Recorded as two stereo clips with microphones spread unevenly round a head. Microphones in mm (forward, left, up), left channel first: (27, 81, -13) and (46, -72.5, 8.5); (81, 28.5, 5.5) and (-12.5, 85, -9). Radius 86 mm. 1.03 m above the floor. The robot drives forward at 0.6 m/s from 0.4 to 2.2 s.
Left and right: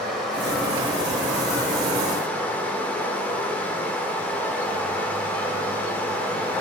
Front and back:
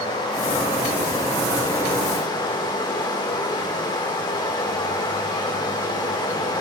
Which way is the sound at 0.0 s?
10° left.